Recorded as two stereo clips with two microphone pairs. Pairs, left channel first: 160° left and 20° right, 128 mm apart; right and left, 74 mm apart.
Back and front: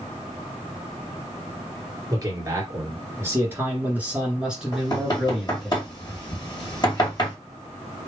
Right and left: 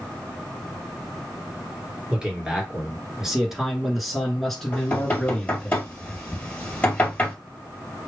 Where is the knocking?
155° right, 2 m.